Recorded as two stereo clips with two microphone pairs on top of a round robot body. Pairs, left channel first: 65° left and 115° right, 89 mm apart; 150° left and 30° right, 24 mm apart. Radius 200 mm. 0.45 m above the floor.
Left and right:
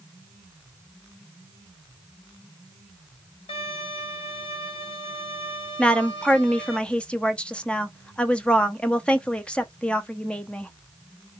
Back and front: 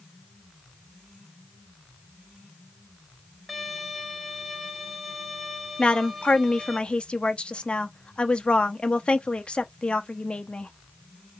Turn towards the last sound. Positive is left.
turn(degrees=150)